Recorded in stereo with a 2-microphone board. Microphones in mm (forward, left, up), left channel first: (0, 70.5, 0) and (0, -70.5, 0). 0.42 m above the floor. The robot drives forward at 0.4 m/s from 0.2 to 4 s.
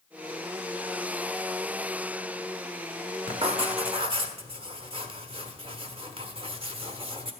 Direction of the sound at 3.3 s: 40° right (ahead or behind).